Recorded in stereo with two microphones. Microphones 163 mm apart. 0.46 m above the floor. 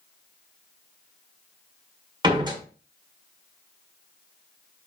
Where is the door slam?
25° right (ahead or behind), 1.3 m.